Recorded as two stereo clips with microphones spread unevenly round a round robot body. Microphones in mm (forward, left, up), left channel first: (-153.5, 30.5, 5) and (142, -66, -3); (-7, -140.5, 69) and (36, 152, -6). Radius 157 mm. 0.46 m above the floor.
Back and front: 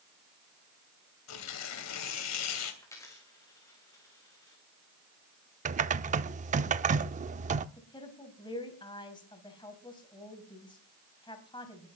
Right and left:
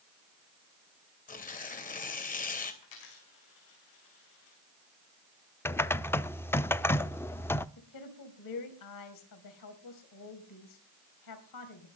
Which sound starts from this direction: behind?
Tearing paper, at 1.3 s.